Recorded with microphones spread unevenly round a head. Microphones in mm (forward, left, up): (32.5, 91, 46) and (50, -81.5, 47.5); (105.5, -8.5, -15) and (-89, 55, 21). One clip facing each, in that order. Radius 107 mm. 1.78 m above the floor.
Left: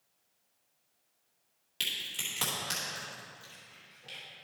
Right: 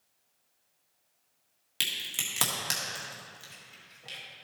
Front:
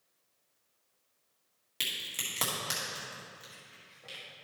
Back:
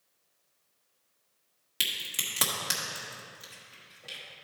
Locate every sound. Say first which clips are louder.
1.8 s a crack: right 2 dB, back 2 dB; 125° right, 1.6 m